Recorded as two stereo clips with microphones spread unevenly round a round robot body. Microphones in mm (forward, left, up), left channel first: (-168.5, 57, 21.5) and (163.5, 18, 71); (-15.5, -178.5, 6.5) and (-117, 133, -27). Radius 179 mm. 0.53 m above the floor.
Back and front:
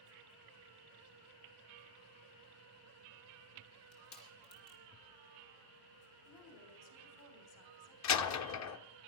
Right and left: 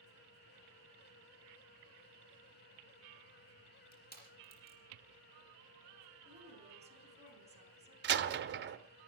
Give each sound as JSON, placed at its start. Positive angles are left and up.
{"t": 3.9, "sound": "crushing", "azimuth_deg": -135, "distance_m": 5.0}
{"t": 6.2, "sound": "a woman speaking", "azimuth_deg": 180, "distance_m": 4.5}
{"t": 8.0, "sound": "a door slam", "azimuth_deg": 155, "distance_m": 1.1}